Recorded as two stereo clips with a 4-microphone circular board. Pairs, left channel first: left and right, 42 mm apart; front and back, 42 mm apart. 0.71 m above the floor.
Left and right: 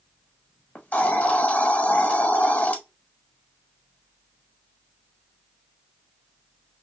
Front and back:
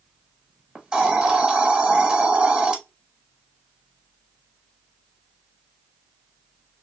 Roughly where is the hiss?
Behind left.